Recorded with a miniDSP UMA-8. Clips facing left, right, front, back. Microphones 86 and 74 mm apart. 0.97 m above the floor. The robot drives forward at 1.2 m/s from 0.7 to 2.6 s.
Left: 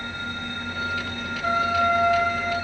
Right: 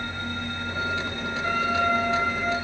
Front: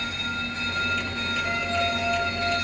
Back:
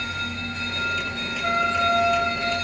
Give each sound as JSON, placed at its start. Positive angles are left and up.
{"t": 1.4, "sound": "a flute", "azimuth_deg": 160, "distance_m": 1.9}